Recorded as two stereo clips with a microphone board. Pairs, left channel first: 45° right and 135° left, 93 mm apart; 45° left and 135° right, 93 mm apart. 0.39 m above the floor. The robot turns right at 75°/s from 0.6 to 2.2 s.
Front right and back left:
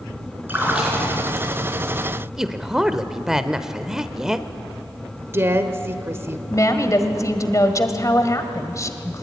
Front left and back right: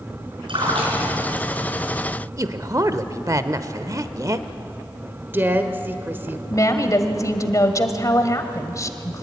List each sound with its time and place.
0.5 s a splash: 155° right, 4.5 m; by 1.5 s 90° right, 4.5 m
2.4 s a man speaking: 145° right, 1.0 m
5.2 s a woman speaking: 175° left, 1.5 m
6.5 s a woman speaking: straight ahead, 1.8 m